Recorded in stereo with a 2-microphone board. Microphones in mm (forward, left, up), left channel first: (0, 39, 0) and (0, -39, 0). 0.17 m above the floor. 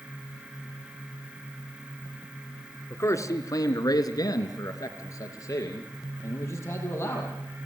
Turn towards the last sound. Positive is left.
turn(degrees=30)  # may be behind; listen again after turning